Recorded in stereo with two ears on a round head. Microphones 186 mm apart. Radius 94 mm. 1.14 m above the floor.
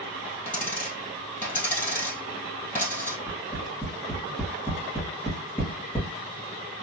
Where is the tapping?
10° left (ahead or behind), 2 m.